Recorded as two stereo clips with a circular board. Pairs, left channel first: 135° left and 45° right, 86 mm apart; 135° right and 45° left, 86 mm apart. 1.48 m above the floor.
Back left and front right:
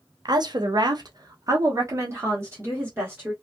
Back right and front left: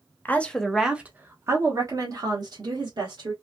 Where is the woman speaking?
70° right, 0.7 m; by 3.3 s 20° left, 1.7 m.